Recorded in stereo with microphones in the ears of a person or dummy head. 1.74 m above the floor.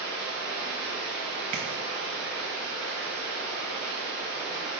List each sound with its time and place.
0.0 s running water: 45° left (ahead or behind), 0.9 m
1.5 s tapping: 35° right (ahead or behind), 0.5 m